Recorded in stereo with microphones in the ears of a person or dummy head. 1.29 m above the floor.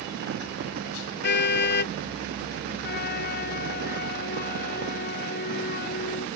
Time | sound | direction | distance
1.2 | a car horn | 55° left (ahead or behind) | ?
2.8 | a flute | 50° left (ahead or behind) | ?